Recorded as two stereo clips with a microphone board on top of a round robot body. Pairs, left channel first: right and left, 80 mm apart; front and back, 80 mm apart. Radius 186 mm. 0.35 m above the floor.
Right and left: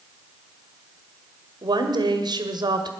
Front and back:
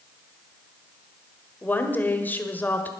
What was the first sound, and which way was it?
A woman speaking, 65° left.